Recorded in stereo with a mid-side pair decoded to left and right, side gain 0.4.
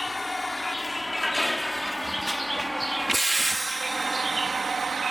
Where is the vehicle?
15° left; by 5.1 s 45° right.